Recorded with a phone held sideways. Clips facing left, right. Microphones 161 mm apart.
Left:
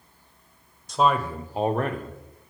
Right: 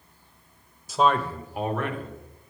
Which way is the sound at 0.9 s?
5° right (ahead or behind).